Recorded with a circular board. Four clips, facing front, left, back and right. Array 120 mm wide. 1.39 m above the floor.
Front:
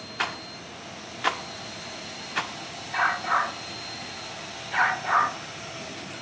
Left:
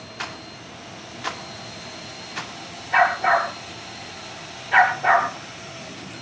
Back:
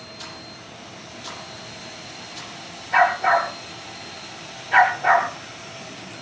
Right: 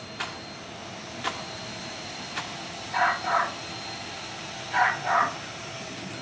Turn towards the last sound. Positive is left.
turn(degrees=130)